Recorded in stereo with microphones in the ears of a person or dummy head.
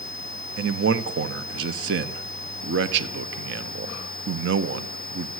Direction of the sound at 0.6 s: 65° right (ahead or behind).